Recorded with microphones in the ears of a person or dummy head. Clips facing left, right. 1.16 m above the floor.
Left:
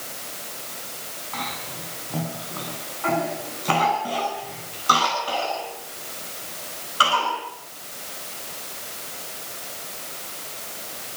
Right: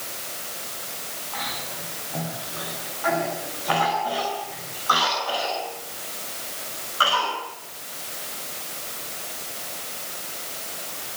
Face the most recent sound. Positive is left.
turn(degrees=45)  # may be behind; listen again after turning